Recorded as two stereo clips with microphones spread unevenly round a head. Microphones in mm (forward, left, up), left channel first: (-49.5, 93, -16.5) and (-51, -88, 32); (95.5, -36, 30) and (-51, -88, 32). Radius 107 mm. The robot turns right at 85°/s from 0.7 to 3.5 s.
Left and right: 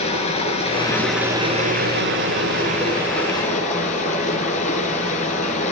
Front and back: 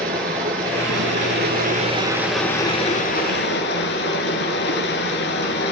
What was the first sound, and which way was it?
Running water, 150° left.